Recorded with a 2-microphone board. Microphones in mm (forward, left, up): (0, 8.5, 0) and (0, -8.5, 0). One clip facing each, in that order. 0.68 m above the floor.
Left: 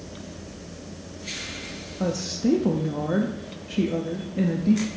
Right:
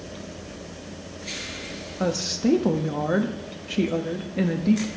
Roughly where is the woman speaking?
Right.